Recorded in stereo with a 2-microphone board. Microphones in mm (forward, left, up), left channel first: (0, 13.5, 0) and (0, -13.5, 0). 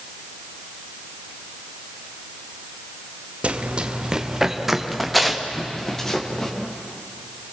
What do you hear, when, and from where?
3.4 s running footsteps: 45° right (ahead or behind), 2 m; by 6.5 s 20° left (ahead or behind), 4.5 m